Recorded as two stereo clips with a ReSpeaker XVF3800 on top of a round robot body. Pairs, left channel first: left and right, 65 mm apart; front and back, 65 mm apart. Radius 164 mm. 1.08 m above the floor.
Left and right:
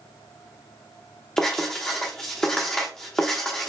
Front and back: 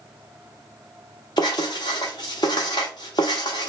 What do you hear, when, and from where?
1.4 s writing: 20° left, 0.5 m